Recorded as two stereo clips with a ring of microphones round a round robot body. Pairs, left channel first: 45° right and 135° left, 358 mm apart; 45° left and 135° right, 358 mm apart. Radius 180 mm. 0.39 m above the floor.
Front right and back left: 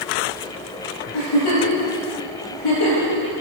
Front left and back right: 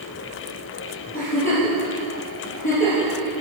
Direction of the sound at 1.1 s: 20° right.